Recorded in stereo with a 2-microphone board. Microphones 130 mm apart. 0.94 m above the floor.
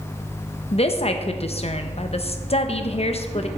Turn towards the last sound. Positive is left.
turn(degrees=50)  # may be behind; listen again after turning